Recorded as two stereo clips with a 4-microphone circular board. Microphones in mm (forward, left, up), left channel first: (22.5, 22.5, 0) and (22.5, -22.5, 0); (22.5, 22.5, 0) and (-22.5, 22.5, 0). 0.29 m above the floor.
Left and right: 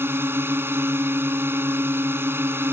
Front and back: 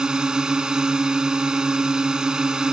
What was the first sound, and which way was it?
A drone, 110° right.